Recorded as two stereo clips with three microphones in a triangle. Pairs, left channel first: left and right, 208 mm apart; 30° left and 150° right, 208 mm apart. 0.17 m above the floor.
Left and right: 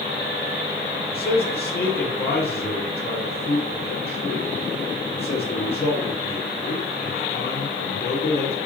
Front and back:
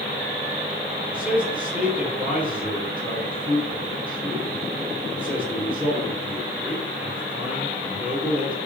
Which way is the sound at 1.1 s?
120° left.